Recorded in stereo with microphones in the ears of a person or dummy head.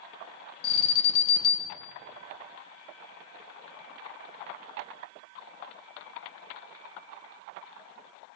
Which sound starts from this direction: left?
An alarm, at 0.6 s.